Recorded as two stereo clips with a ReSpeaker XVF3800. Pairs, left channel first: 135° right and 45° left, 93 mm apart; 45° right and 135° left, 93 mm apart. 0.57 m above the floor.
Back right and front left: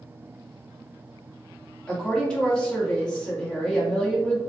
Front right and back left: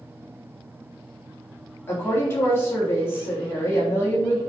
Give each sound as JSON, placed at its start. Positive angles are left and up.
{"t": 1.9, "sound": "a woman speaking", "azimuth_deg": -70, "distance_m": 1.2}